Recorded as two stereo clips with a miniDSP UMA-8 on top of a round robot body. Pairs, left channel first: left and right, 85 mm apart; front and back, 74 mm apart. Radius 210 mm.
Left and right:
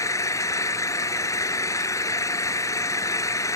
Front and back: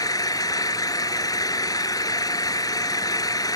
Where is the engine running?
35° left.